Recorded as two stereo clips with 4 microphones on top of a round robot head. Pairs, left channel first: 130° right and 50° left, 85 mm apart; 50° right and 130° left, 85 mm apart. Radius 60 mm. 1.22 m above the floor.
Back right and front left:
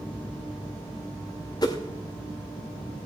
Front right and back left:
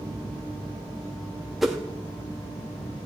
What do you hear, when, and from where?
1.6 s a whoosh: 145° right, 0.6 m